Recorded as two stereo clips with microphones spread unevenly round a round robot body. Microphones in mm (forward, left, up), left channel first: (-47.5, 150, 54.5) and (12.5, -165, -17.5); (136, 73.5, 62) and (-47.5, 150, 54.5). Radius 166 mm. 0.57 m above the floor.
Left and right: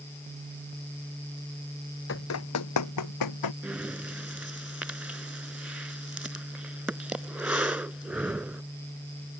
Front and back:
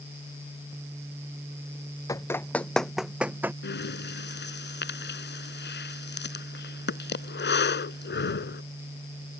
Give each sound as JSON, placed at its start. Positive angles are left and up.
{"t": 2.1, "sound": "running footsteps", "azimuth_deg": 50}
{"t": 3.6, "sound": "breathing", "azimuth_deg": 10}